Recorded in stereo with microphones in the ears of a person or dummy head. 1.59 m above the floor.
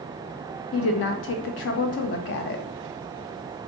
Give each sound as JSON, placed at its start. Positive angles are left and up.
{"t": 0.7, "sound": "a woman speaking", "side_deg": 65, "distance_m": 0.9}